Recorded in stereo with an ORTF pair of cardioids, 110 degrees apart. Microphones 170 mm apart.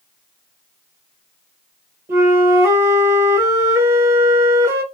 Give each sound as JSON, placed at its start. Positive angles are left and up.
{"t": 2.1, "sound": "a flute", "azimuth_deg": -20, "distance_m": 1.0}